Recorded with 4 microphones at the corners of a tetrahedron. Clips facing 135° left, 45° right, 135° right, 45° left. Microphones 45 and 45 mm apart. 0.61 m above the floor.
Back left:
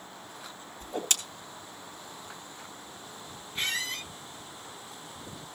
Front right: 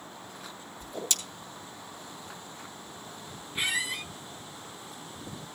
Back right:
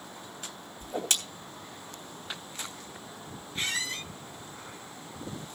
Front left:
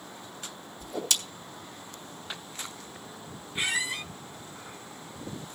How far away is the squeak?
About 0.5 m.